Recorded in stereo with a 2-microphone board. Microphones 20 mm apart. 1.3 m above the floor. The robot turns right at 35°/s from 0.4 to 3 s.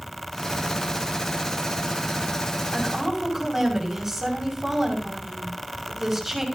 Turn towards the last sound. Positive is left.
turn(degrees=-20)  # may be behind; listen again after turning